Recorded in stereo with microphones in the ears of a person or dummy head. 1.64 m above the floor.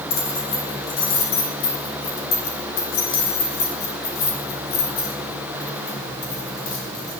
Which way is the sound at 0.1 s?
55° left (ahead or behind).